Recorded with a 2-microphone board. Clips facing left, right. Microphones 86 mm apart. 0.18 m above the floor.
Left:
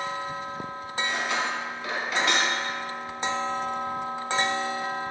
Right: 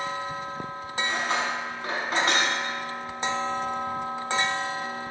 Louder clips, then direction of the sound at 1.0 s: Right 1 dB; 40° right (ahead or behind).